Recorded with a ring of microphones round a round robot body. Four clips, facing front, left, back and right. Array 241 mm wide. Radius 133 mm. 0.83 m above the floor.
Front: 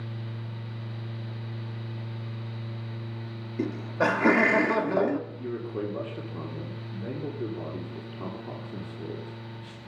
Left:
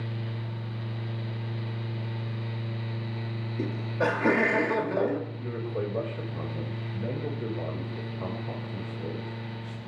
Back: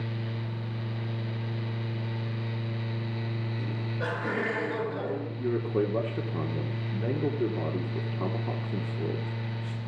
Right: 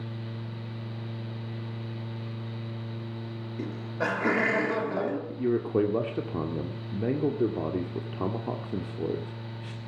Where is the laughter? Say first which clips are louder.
Left 4 dB, front 11 dB; 5° right, 2.5 m.